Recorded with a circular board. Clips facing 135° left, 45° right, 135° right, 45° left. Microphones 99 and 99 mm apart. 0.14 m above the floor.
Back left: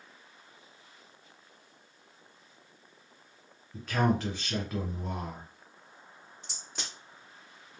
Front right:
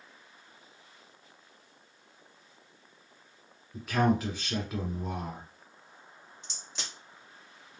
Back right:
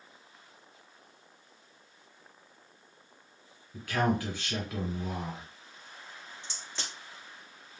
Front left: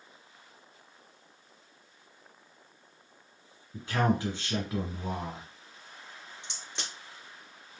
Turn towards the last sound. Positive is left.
turn(degrees=110)